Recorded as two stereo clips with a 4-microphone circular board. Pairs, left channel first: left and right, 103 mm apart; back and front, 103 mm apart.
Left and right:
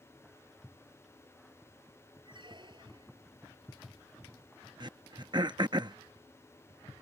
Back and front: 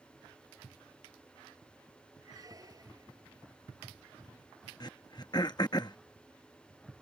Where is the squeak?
55° right.